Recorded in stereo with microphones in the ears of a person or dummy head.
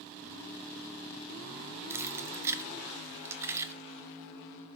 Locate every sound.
1.9 s keys jangling: 15° right (ahead or behind), 0.6 m